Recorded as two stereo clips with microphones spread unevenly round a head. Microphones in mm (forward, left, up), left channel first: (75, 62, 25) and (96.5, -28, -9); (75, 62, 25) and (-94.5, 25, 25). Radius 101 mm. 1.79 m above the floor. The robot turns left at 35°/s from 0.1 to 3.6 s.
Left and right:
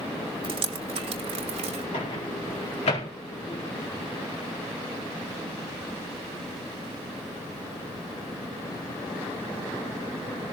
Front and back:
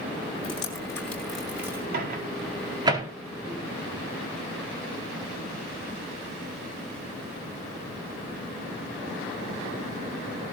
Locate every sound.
0.4 s dripping: 45° right, 2.5 m; by 1.8 s 95° right, 2.5 m
1.9 s a microwave: 160° left, 4.5 m; by 3.1 s 120° left, 4.5 m